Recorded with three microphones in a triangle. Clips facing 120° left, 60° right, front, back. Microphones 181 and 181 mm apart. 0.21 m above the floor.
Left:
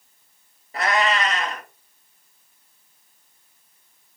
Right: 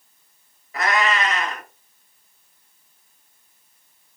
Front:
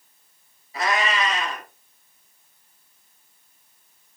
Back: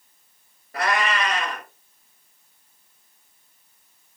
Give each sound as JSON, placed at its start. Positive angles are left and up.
{"t": 0.7, "sound": "a cat meowing", "azimuth_deg": 170, "distance_m": 1.3}